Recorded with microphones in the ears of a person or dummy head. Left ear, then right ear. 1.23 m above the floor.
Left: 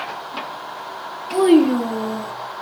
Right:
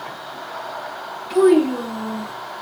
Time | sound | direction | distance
1.3 | a child speaking | 10° left (ahead or behind) | 0.7 m